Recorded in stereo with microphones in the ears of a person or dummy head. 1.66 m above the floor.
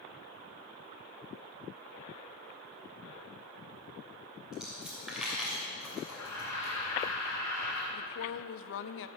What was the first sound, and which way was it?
A dropped coin, centre (ahead or behind).